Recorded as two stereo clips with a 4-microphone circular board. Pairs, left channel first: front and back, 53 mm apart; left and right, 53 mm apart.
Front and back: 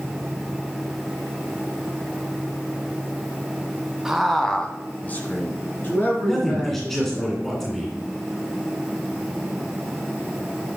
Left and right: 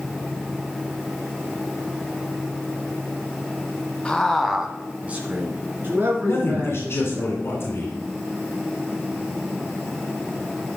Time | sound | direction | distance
4.0 | a man speaking | 115° left | 1.0 m
6.2 | a man speaking | 85° left | 2 m